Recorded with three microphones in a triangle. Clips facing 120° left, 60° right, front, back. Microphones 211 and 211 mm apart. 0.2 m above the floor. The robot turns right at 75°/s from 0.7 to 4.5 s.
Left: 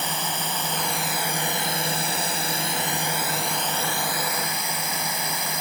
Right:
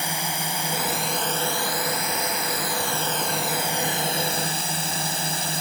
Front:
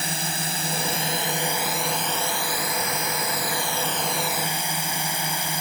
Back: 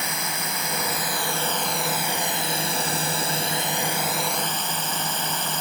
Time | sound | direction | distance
0.0 | a drone | 5° left | ?